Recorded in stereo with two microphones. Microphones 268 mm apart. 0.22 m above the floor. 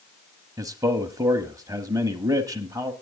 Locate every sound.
0.6 s a man speaking: 15° right (ahead or behind), 1.0 m